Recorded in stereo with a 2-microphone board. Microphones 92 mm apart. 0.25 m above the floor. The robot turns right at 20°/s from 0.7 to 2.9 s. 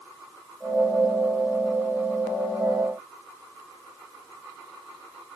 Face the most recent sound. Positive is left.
No sound to turn to.